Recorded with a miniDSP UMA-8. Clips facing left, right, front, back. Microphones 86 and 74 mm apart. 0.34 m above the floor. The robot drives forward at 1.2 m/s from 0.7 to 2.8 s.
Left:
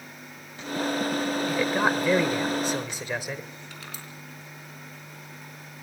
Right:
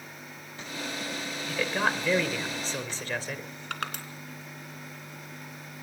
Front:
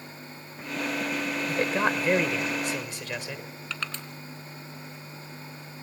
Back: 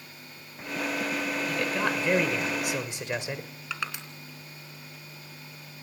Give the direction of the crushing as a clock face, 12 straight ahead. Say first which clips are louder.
Right 7 dB, back 1 dB; 3 o'clock.